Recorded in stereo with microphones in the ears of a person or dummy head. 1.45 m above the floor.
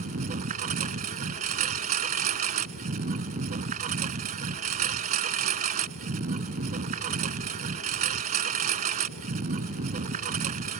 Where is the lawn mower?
40° right (ahead or behind).